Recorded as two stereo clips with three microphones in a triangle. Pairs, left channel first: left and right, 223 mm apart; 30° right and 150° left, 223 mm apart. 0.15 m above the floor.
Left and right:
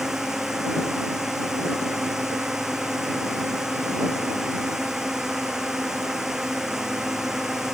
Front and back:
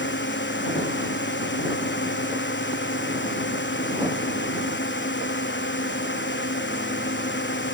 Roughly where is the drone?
Ahead.